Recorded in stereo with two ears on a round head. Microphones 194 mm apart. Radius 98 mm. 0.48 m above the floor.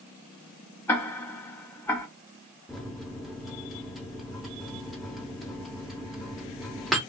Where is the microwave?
Centre (ahead or behind), 0.6 m.